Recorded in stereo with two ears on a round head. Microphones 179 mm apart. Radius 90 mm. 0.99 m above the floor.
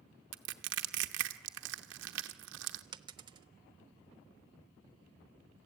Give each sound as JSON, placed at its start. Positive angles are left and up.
{"t": 0.3, "sound": "crushing", "side_deg": -65, "distance_m": 0.9}
{"t": 2.9, "sound": "a dropped coin", "side_deg": -20, "distance_m": 0.7}